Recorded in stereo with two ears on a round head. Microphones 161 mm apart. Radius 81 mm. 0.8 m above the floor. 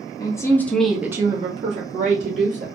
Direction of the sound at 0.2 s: 20° left (ahead or behind).